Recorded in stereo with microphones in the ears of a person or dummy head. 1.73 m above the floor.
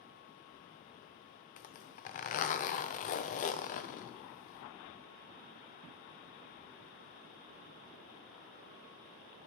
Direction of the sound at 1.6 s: 45° left (ahead or behind).